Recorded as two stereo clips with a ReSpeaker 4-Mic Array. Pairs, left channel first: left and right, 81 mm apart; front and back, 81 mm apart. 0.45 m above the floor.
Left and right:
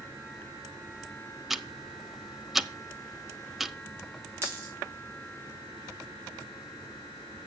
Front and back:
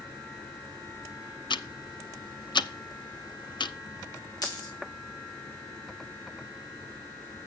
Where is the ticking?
5° right, 0.5 m.